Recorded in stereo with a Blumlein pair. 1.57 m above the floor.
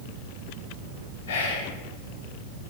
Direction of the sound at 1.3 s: 55° left.